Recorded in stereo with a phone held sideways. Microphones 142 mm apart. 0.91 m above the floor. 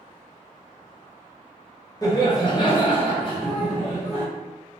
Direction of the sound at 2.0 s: 25° left (ahead or behind).